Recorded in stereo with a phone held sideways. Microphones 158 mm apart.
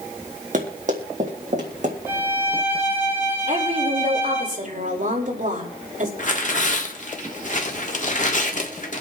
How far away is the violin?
About 7.5 m.